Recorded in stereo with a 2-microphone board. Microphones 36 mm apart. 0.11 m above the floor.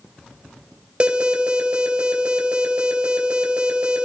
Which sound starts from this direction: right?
An alarm, at 1.0 s.